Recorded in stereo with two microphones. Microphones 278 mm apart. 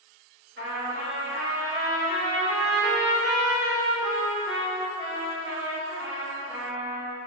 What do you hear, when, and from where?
0.6 s a trumpet: 45° right (ahead or behind), 1.4 m